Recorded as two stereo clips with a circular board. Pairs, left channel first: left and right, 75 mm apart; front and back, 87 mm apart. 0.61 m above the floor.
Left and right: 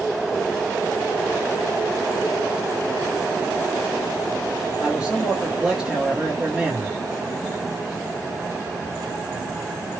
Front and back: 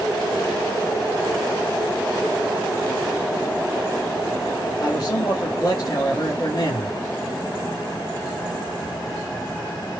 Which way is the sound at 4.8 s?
10° right.